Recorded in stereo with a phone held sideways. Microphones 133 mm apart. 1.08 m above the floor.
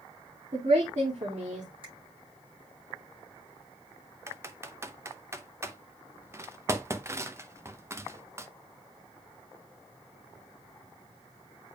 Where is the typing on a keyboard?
20° right (ahead or behind), 0.7 m.